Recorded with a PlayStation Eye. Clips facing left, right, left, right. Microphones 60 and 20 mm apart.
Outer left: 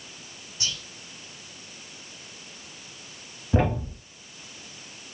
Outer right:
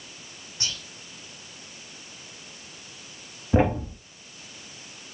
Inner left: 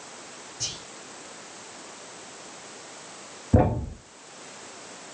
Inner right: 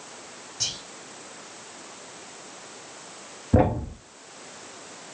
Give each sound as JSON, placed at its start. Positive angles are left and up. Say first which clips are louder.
{"t": 0.6, "sound": "whispering", "louder": "outer left 1 dB, inner right 4 dB", "side_deg": -40, "distance_m": 2.0}
{"t": 3.5, "sound": "a thud", "louder": "outer right 3 dB, inner right 1 dB", "side_deg": -10, "distance_m": 0.6}